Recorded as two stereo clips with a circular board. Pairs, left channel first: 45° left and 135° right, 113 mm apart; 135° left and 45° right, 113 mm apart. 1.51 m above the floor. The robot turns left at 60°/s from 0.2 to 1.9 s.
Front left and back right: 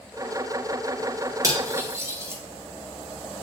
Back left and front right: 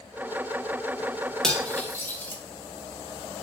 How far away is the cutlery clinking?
About 0.6 m.